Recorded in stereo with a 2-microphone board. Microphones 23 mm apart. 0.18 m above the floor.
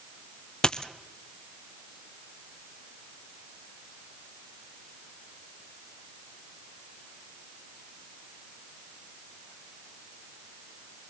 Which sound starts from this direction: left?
A dropped coin, at 0.6 s.